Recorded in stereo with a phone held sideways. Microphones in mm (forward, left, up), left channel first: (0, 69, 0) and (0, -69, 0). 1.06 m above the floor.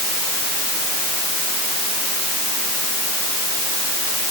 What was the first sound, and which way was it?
Only background noise.